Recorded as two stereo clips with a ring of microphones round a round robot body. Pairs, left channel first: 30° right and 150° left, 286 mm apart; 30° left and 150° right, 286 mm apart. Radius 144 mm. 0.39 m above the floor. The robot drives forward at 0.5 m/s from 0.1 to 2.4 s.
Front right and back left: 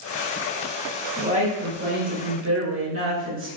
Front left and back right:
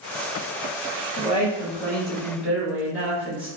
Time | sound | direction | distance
1.2 | a woman speaking | 85° left | 1.1 m